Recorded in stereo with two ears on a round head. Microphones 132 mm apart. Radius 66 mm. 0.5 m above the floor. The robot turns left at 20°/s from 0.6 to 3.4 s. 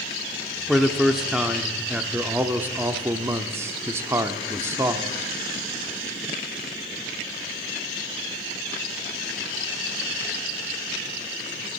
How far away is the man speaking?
About 0.7 m.